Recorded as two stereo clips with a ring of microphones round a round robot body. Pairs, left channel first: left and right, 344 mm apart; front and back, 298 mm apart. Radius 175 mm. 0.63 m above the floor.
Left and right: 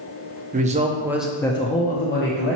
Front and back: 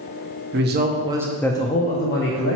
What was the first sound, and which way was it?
A man speaking, 150° right.